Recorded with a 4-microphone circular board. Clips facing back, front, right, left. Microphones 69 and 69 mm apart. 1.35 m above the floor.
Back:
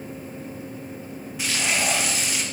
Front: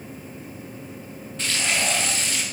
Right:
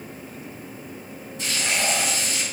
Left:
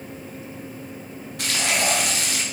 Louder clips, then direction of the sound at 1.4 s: Even, left 2 dB; 100° left.